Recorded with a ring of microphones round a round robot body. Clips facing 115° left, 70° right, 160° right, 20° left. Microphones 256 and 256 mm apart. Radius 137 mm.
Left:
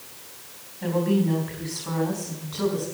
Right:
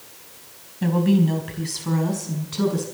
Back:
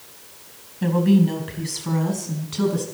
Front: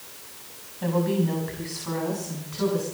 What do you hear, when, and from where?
0.8 s a woman speaking: 105° right, 4.5 m; by 2.8 s 120° right, 6.5 m